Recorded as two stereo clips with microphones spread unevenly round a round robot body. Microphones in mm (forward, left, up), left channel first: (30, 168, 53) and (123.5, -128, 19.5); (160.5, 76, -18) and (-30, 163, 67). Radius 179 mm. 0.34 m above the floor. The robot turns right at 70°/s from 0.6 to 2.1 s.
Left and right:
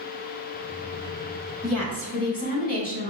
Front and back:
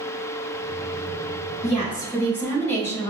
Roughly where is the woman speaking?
Ahead.